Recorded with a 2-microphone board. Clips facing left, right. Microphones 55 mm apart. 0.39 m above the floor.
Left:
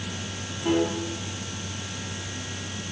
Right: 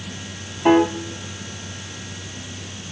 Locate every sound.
0.7 s a piano: 80° right, 1.0 m